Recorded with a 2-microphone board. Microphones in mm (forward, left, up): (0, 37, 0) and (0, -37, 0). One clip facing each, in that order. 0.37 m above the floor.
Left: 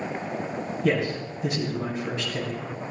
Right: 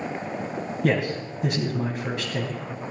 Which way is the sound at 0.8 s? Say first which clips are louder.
Right 1 dB; 60° right (ahead or behind).